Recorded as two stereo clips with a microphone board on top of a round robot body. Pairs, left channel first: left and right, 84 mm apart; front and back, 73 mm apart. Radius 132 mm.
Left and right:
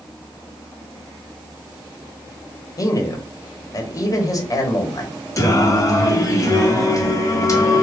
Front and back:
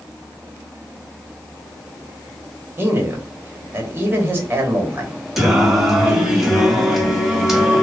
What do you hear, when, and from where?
2.8 s a man speaking: 120° left, 1.3 m
5.4 s singing: 100° left, 1.4 m